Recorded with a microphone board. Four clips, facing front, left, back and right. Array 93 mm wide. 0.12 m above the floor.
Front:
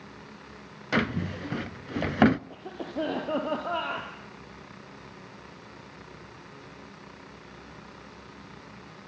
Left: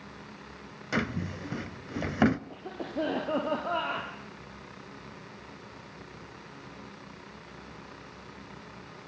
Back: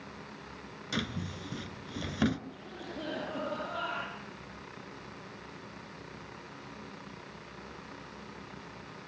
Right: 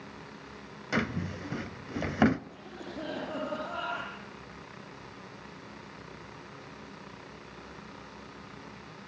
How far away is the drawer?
About 0.6 m.